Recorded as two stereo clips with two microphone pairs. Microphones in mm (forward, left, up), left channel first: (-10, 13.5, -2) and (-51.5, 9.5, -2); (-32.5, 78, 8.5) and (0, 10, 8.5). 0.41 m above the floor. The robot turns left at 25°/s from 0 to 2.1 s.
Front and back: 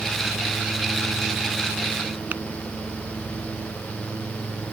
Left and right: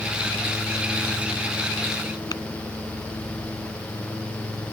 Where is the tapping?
140° left.